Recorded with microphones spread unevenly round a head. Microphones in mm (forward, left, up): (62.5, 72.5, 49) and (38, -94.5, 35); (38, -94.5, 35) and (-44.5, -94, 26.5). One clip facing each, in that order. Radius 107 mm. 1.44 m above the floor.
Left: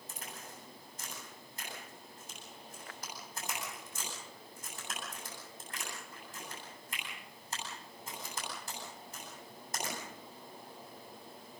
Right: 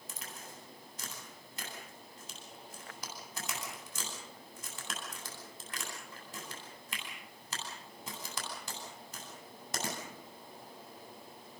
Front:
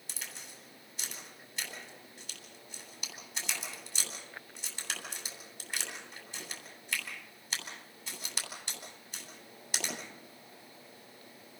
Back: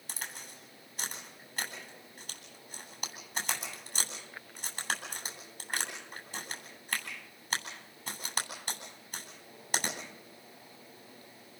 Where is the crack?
140° right, 9 m.